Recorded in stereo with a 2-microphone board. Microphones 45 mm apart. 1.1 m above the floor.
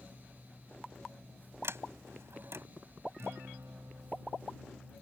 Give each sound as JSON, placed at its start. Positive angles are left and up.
{"t": 1.6, "sound": "a sliding door", "side_deg": -75}
{"t": 3.2, "sound": "a guitar", "side_deg": -85}